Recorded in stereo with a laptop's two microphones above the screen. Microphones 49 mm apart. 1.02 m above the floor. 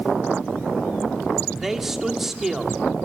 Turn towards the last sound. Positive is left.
turn(degrees=-5)  # may be behind; listen again after turning